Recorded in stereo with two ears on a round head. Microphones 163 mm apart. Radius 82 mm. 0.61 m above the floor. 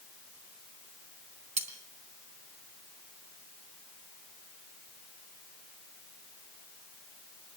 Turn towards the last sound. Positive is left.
turn(degrees=-40)  # may be behind; listen again after turning